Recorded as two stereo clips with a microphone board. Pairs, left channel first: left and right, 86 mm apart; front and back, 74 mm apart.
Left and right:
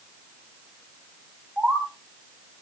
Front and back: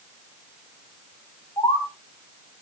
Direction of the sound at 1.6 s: 10° right.